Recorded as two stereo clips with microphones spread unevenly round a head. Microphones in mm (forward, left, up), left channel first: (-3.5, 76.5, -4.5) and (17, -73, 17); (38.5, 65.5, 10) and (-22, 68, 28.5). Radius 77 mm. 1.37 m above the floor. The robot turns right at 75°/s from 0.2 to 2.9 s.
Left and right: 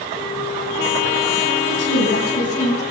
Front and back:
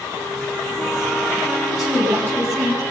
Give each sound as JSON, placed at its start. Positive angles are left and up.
{"t": 1.6, "sound": "a woman speaking", "azimuth_deg": 80, "distance_m": 9.0}